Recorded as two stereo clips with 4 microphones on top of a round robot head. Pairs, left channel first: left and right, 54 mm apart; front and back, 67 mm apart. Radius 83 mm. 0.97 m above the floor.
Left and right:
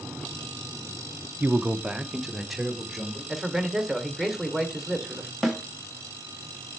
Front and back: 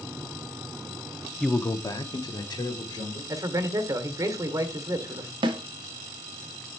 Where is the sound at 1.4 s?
85° right, 0.5 m; by 3.2 s straight ahead, 2.5 m.